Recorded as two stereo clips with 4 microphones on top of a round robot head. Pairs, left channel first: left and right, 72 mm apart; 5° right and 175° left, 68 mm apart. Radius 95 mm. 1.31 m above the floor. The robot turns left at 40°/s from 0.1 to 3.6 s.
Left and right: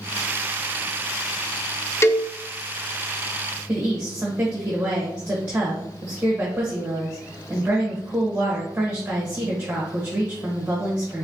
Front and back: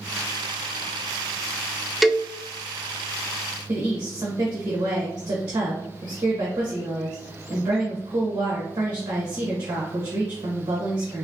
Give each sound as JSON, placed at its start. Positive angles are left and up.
{"t": 2.0, "sound": "a cowbell", "azimuth_deg": 90, "distance_m": 0.5}
{"t": 3.7, "sound": "a woman speaking", "azimuth_deg": -160, "distance_m": 1.0}